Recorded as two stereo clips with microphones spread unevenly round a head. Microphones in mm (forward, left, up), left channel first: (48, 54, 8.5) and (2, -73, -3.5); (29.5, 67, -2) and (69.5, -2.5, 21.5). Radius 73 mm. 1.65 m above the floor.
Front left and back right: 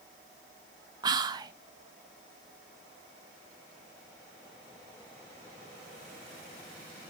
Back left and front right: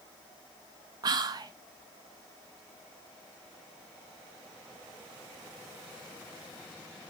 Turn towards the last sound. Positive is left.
turn(degrees=-45)